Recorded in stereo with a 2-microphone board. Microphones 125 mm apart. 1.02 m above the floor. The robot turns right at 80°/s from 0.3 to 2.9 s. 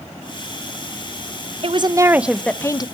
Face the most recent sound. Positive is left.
turn(degrees=45)